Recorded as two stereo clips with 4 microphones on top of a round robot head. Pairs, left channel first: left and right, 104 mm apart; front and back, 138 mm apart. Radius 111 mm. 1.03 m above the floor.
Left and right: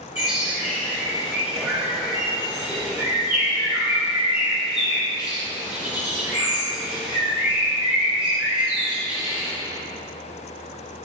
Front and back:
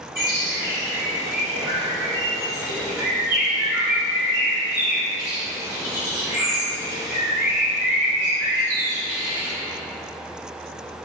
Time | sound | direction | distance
0.1 | a bird | 115° right | 0.9 m